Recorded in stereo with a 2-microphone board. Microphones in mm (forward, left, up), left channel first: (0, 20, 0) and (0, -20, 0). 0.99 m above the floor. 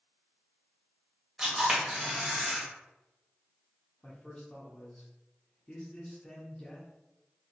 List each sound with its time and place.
1.4 s a camera shutter: 10° right (ahead or behind), 1.3 m
4.0 s a man speaking: 20° left (ahead or behind), 0.7 m